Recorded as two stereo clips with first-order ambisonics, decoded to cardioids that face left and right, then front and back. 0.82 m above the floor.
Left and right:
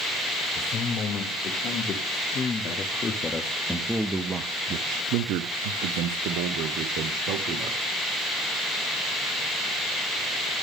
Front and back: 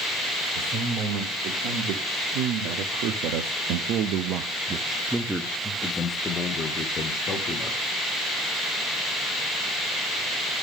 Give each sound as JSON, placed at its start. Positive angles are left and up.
{"t": 0.6, "sound": "a man speaking", "azimuth_deg": 145, "distance_m": 2.5}